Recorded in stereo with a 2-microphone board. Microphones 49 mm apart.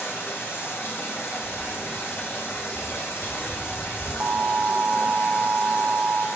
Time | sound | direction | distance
0.0 | running water | 65° left (ahead or behind) | 3.5 m
1.4 | footsteps | 25° left (ahead or behind) | 1.8 m
4.2 | an alarm | 40° right (ahead or behind) | 0.5 m